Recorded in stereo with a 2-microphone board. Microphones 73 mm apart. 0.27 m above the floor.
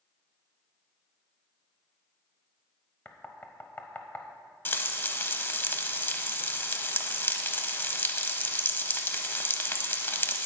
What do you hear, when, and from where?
3.0 s knocking: 25° left (ahead or behind), 0.8 m
4.7 s frying: 25° left (ahead or behind), 0.7 m